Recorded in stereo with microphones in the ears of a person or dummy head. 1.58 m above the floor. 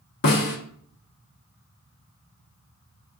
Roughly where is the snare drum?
Left.